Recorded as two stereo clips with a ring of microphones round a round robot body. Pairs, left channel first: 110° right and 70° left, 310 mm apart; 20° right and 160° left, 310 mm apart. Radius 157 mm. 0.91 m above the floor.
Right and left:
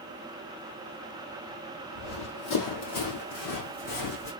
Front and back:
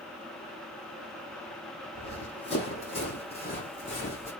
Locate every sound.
1.9 s running footsteps: 90° right, 2.5 m; by 4.3 s 95° right, 3.5 m